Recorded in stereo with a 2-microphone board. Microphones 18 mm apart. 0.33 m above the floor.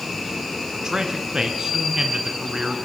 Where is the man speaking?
45° right (ahead or behind), 2.5 m.